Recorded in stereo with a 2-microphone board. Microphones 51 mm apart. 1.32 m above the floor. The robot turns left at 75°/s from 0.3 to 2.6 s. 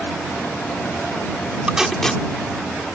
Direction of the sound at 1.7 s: 20° right (ahead or behind).